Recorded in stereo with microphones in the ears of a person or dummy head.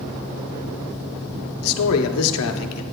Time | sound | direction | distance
1.6 | a man speaking | 85° left | 0.8 m